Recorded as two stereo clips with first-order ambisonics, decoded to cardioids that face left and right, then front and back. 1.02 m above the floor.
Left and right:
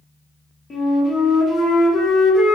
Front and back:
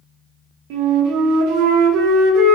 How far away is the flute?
About 0.6 m.